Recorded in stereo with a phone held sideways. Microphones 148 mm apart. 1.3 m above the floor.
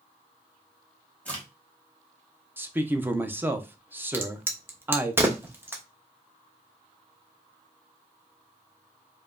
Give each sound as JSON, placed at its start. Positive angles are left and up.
{"t": 1.2, "sound": "a crack", "side_deg": 10, "distance_m": 1.4}
{"t": 2.6, "sound": "a man speaking", "side_deg": -15, "distance_m": 0.5}
{"t": 4.1, "sound": "a crack", "side_deg": -15, "distance_m": 0.7}